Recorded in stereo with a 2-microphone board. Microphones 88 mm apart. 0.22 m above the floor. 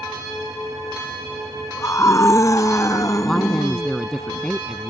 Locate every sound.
1.8 s a scream: 35° left (ahead or behind); by 3.9 s 45° left (ahead or behind)
3.2 s a woman speaking: 5° left (ahead or behind)